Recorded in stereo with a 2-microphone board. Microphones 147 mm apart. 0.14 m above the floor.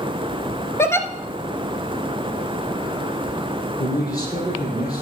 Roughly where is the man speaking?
Left.